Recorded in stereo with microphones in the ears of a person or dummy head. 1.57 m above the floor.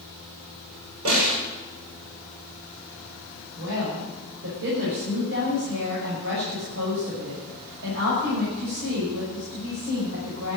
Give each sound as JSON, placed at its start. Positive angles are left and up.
{"t": 1.1, "sound": "a snare drum", "side_deg": -80, "distance_m": 6.5}
{"t": 3.6, "sound": "a woman speaking", "side_deg": -60, "distance_m": 5.5}